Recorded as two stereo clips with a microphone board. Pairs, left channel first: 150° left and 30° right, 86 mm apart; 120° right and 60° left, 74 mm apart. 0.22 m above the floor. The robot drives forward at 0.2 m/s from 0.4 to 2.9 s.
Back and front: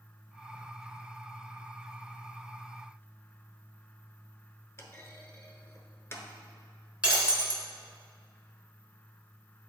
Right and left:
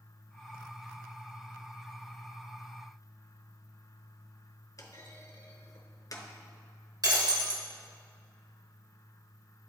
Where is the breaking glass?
45° left, 1.3 m.